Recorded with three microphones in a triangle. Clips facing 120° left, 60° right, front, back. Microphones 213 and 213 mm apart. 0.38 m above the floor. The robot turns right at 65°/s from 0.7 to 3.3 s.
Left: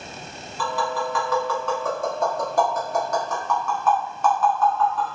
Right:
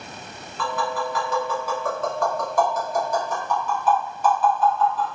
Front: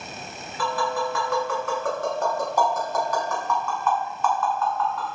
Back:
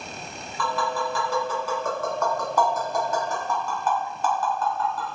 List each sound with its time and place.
0.6 s tapping: 45° right, 1.2 m; by 5.2 s 125° left, 1.2 m